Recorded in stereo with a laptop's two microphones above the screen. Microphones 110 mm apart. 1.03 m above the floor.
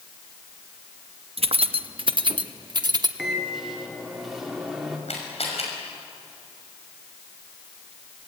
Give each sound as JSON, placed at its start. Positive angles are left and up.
{"t": 1.4, "sound": "keys jangling", "side_deg": -70, "distance_m": 0.7}
{"t": 3.2, "sound": "a microwave", "side_deg": -5, "distance_m": 2.5}
{"t": 5.1, "sound": "a camera shutter", "side_deg": 85, "distance_m": 6.0}